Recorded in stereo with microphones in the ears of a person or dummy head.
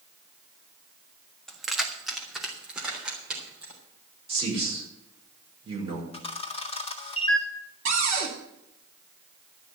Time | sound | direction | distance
1.5 | keys jangling | 5° left (ahead or behind) | 1.2 m
4.3 | a man speaking | 25° right (ahead or behind) | 5 m
6.1 | a camera shutter | 35° left (ahead or behind) | 1.7 m
7.8 | a cupboard door | 45° right (ahead or behind) | 3 m